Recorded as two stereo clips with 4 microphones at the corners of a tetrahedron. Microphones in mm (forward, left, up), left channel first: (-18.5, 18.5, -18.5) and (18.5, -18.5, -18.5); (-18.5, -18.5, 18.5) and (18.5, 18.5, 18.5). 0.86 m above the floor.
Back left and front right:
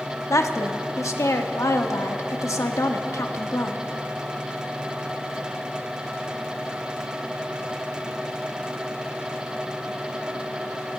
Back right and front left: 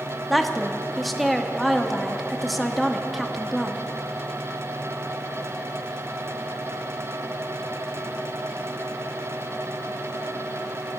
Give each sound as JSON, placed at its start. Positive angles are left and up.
{"t": 0.3, "sound": "a woman speaking", "azimuth_deg": 135, "distance_m": 1.1}